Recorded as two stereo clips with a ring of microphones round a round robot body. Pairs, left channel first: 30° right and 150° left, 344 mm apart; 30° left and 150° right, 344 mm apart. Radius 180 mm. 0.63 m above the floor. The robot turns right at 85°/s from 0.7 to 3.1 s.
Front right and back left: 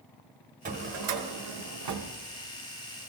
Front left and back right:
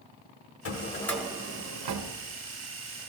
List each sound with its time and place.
0.7 s a drawer: 80° left, 1.0 m; by 3.1 s 75° right, 1.0 m